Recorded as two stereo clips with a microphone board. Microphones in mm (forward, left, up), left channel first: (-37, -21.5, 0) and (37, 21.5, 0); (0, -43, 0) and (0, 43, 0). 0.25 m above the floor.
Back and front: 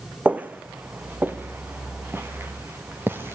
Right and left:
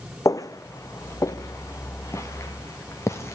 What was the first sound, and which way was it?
Footsteps, 45° right.